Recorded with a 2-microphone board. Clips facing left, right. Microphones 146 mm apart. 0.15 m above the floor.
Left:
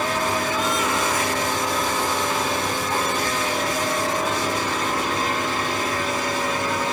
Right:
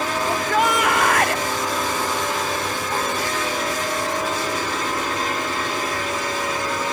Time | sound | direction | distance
0.3 | a shout | 65° right (ahead or behind) | ?